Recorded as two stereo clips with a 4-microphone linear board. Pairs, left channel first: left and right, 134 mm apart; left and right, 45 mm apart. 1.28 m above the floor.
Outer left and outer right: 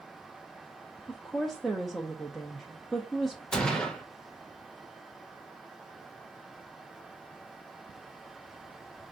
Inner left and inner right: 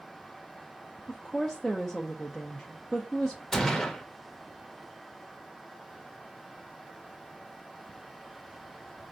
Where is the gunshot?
5° left (ahead or behind), 1.0 m.